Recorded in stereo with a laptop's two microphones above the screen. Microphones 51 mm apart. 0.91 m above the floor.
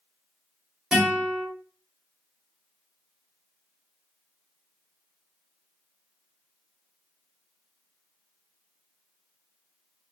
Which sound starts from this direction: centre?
A guitar, at 0.9 s.